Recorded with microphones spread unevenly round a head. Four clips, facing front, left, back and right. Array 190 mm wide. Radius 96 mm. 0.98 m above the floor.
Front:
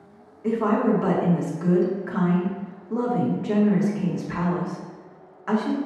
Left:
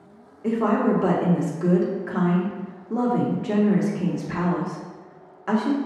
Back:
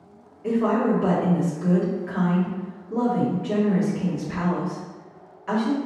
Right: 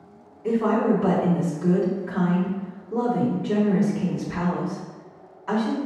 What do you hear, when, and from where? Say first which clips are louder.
0.4 s a woman speaking: even, even; 80° left, 1.3 m